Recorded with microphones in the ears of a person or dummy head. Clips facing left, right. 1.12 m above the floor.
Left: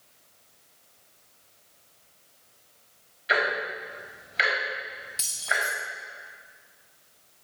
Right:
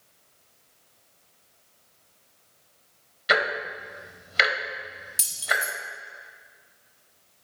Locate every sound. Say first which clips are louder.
3.3 s ticking: right 1 dB; 60° right (ahead or behind), 0.9 m
5.2 s keys jangling: right 1 dB; 15° right (ahead or behind), 0.6 m